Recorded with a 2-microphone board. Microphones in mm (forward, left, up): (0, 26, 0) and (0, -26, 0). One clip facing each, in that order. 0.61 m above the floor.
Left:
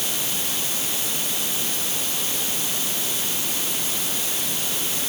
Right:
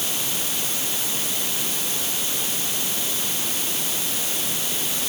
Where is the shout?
I don't hear a shout.